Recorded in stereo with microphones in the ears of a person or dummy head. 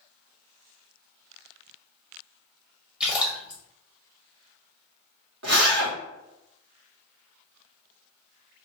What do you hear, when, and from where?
3.0 s a splash: 10° right (ahead or behind), 0.6 m
5.4 s a zipper: 75° right (ahead or behind), 1.0 m